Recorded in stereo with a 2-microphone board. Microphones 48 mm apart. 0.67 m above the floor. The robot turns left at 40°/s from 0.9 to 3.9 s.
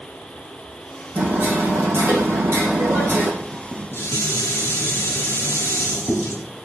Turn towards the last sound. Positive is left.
turn(degrees=70)  # may be behind; listen again after turning